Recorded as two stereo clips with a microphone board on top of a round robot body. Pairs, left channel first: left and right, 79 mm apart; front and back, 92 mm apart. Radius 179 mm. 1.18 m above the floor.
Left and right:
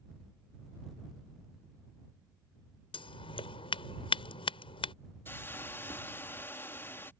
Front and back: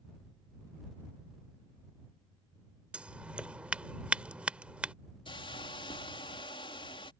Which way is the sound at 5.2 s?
30° left.